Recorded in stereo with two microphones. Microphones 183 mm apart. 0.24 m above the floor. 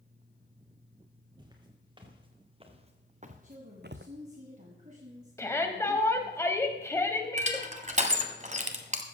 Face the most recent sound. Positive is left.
turn(degrees=-40)  # may be behind; listen again after turning